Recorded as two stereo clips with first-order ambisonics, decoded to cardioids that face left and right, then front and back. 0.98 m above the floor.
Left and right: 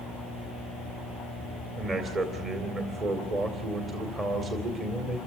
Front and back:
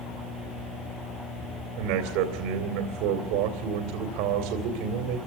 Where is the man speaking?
160° right, 2.5 m.